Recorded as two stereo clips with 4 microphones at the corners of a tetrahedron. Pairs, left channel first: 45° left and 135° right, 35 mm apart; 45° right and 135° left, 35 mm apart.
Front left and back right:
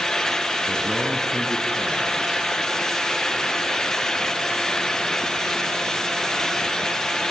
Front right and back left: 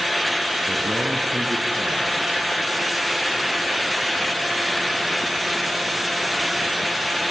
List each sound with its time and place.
0.7 s a man speaking: 155° left, 3.5 m